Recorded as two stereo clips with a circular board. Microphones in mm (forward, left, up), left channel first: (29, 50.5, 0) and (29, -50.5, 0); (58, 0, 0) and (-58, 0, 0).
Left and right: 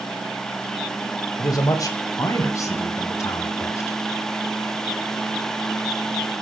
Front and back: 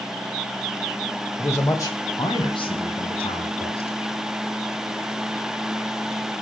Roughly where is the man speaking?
Ahead left.